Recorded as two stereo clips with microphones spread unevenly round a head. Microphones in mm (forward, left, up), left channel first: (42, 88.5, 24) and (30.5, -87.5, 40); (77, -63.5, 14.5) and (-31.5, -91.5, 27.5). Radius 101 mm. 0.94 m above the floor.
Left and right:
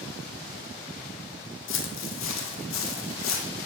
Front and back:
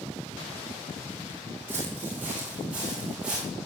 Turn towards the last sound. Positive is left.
turn(degrees=110)